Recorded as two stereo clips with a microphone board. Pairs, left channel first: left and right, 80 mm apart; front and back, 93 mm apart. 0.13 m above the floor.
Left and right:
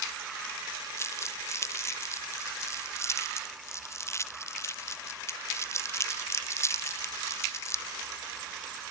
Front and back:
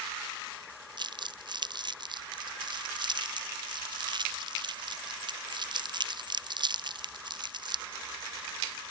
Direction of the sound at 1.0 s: 145° left.